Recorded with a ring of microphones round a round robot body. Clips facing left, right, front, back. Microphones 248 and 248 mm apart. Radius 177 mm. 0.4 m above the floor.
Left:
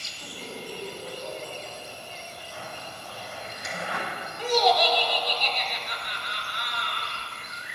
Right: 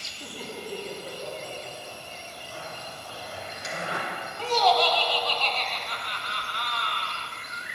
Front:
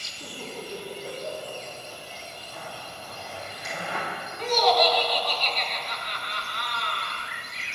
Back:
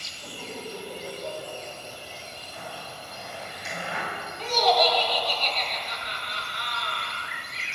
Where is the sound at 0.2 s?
65° right, 3.5 m; by 3.5 s 165° right, 1.8 m.